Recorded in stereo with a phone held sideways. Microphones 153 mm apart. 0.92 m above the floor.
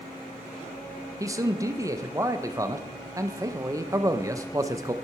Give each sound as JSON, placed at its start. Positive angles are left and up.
{"t": 1.2, "sound": "a man speaking", "side_deg": -20, "distance_m": 0.6}